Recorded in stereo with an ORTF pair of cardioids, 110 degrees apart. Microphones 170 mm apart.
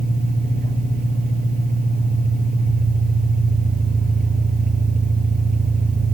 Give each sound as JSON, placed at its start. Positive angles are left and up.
{"t": 0.0, "sound": "an engine running", "azimuth_deg": -55, "distance_m": 9.5}